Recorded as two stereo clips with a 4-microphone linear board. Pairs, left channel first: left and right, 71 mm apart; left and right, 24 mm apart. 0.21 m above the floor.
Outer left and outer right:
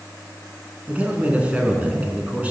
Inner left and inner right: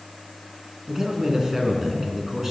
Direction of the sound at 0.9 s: 20° right (ahead or behind).